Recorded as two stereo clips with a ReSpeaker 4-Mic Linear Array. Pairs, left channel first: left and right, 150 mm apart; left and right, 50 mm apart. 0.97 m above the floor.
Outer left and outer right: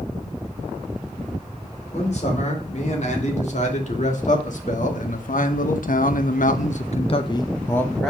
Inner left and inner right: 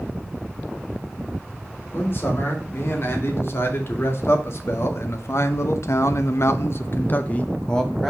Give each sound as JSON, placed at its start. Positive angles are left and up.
{"t": 1.9, "sound": "a man speaking", "side_deg": 50, "distance_m": 3.0}